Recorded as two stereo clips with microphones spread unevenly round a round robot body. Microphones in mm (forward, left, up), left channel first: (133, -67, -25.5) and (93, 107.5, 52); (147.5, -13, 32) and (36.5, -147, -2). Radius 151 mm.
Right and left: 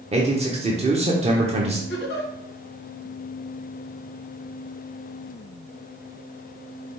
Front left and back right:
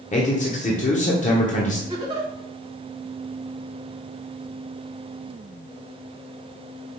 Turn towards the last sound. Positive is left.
turn(degrees=-70)